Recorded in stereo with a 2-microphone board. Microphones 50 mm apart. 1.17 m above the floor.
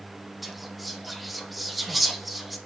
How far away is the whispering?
About 0.6 m.